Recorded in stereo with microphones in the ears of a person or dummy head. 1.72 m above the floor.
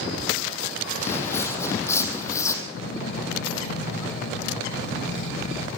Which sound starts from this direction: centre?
Footsteps, at 1.0 s.